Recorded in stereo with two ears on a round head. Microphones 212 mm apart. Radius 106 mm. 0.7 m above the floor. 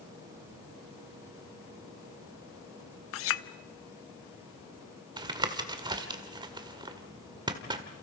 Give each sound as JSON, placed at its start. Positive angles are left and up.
{"t": 3.1, "sound": "a clink", "side_deg": 60, "distance_m": 0.8}
{"t": 5.2, "sound": "tapping", "side_deg": -20, "distance_m": 1.7}